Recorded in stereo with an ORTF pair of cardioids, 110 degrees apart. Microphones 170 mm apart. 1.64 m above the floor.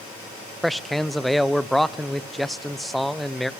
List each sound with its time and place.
0.6 s a man speaking: straight ahead, 0.6 m